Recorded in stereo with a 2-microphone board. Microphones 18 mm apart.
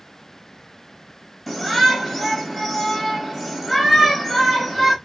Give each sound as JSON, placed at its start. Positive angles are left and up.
{"t": 1.5, "sound": "a shout", "side_deg": 0, "distance_m": 2.5}